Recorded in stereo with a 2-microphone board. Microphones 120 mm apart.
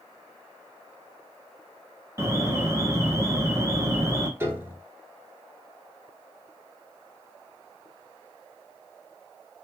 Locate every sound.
2.2 s an alarm: 25° right (ahead or behind), 1.0 m
4.4 s a piano: 20° right (ahead or behind), 1.1 m